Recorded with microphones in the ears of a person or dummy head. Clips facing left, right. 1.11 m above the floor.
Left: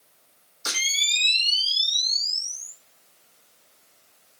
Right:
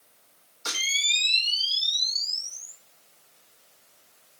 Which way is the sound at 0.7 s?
20° left (ahead or behind).